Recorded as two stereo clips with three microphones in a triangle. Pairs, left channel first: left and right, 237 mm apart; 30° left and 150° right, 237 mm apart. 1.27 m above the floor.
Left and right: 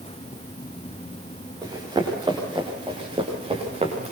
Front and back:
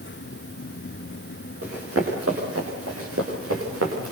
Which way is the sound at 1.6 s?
165° right.